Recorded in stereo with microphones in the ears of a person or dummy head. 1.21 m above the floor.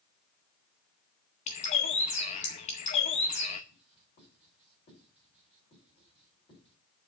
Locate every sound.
1.5 s a bird: 30° left (ahead or behind), 0.7 m
3.7 s writing: 30° left (ahead or behind), 5 m